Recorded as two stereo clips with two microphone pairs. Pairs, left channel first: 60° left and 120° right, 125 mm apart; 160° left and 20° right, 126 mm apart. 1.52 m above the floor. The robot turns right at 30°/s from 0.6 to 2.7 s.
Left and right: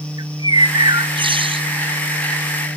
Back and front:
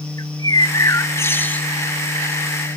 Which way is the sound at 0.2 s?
155° right.